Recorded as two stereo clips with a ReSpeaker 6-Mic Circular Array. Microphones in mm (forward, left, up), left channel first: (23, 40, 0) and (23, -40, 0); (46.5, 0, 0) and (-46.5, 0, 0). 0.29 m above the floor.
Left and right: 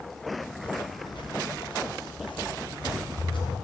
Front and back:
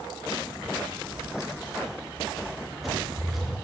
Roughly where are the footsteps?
Left.